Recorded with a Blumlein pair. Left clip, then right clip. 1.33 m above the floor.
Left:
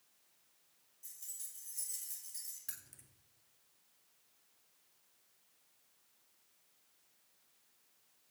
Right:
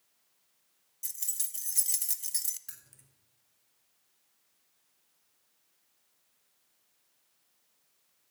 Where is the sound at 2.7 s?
Straight ahead, 1.0 m.